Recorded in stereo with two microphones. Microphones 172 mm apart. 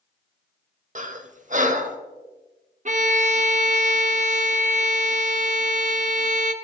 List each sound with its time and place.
0.9 s breathing: 45° right (ahead or behind), 0.7 m
2.9 s a violin: 45° right (ahead or behind), 0.7 m